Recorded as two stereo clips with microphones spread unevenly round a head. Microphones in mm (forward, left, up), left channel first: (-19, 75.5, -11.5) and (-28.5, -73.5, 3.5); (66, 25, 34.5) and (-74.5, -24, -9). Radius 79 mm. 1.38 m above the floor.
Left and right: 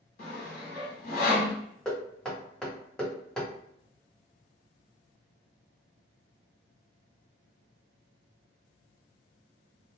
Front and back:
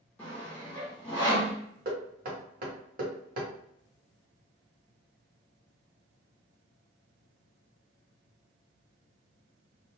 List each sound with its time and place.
0.2 s sawing: 85° left, 1.0 m
1.9 s knocking: 170° left, 0.9 m